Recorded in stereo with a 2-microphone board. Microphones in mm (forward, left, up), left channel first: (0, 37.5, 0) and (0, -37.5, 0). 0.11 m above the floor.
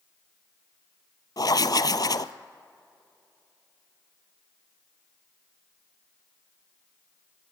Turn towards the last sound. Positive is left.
turn(degrees=60)  # may be behind; listen again after turning